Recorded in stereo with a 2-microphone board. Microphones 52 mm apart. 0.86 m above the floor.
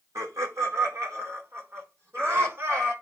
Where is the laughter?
75° right (ahead or behind), 2.5 m; by 2.9 s 45° right (ahead or behind), 4 m.